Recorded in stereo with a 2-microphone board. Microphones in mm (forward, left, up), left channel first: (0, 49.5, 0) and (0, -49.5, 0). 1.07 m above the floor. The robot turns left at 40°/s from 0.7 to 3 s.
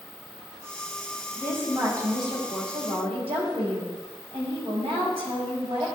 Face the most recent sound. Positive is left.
turn(degrees=-80)